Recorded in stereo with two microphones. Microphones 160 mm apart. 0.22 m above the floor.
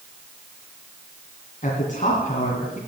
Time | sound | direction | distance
1.6 | a man speaking | 50° left (ahead or behind) | 2.5 m